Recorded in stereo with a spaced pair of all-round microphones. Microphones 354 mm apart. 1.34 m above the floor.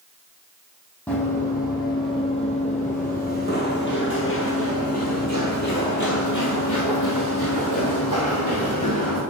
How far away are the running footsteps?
About 2.5 m.